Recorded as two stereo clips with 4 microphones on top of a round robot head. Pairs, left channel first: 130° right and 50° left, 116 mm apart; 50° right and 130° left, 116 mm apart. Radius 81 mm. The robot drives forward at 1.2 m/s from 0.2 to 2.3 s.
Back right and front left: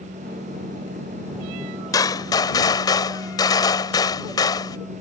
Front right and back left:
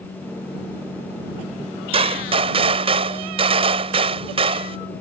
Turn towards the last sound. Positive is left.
turn(degrees=170)